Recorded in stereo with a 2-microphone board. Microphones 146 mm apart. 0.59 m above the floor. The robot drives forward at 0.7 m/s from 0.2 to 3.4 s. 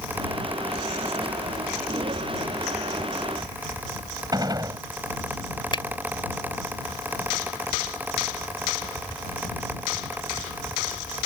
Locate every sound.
4.3 s a gunshot: 25° right (ahead or behind)
5.7 s a finger snap: 30° left (ahead or behind)